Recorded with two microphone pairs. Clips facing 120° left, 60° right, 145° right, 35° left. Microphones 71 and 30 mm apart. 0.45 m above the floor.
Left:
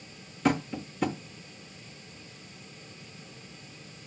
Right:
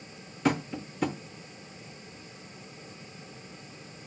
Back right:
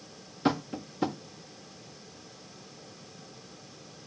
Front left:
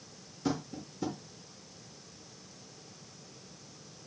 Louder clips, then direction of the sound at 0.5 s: Left 1 dB, back right 6 dB; 145° right.